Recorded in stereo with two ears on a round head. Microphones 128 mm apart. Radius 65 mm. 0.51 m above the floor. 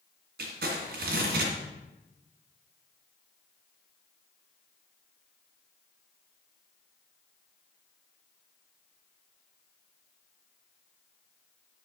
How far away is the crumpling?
About 2.5 m.